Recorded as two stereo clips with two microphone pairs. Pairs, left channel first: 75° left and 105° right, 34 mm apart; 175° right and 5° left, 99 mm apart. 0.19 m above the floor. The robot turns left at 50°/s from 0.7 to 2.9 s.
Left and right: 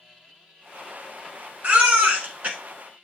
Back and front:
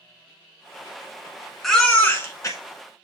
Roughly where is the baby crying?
Right.